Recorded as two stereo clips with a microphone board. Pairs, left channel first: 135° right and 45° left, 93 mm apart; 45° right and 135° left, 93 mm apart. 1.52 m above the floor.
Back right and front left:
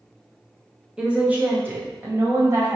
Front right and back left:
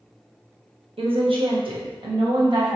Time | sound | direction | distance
1.0 | a woman speaking | 125° left | 0.8 m